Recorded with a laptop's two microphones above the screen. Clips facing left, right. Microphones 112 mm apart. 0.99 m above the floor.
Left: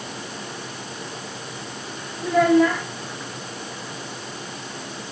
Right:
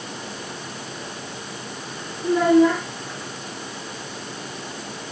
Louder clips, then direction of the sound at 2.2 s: Right 1 dB; 90° left.